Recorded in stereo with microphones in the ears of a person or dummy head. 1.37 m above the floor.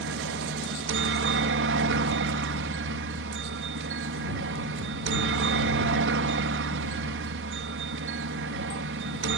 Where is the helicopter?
55° right (ahead or behind).